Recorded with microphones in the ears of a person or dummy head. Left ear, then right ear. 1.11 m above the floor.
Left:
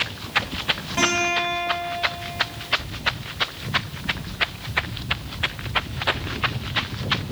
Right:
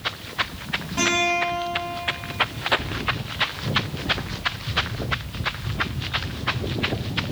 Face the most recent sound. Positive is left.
turn(degrees=25)  # may be behind; listen again after turning